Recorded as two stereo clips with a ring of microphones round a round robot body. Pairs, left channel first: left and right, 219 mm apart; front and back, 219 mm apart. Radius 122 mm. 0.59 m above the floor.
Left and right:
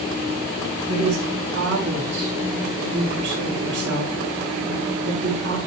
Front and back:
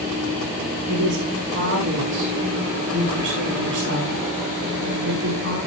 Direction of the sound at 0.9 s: 135° right.